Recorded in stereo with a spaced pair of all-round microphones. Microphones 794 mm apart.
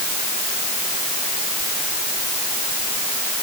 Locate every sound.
Only background noise.